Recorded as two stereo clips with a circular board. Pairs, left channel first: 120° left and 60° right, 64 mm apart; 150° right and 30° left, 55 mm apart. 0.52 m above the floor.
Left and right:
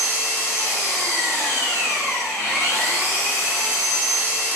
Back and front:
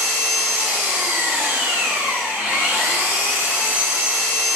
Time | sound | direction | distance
0.0 | an engine running | 75° left | 1.1 m